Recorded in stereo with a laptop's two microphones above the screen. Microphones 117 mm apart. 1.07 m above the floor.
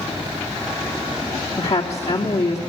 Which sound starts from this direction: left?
A woman speaking, at 1.6 s.